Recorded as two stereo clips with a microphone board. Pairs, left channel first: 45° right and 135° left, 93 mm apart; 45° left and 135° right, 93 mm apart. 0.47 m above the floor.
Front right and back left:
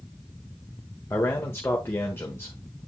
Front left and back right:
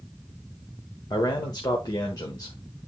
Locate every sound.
1.1 s a man speaking: 10° left, 1.3 m